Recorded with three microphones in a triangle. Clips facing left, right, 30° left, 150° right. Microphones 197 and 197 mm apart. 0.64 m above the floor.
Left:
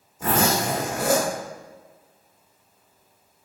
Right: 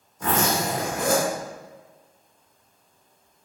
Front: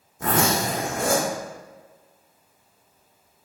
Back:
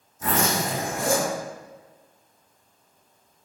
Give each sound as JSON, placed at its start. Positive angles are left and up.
{"t": 0.2, "sound": "a zipper", "azimuth_deg": 10, "distance_m": 0.8}